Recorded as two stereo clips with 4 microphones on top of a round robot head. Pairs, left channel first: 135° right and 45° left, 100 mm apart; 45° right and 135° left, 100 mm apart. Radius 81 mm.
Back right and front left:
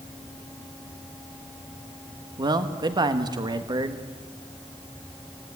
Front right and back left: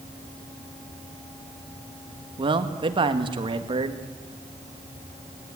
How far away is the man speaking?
About 1.6 m.